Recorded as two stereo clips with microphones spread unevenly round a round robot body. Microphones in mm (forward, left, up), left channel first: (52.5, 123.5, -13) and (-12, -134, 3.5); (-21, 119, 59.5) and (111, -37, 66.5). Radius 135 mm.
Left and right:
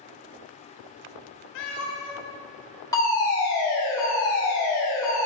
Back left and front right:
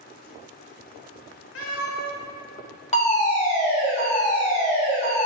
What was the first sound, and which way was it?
A cat meowing, 105° left.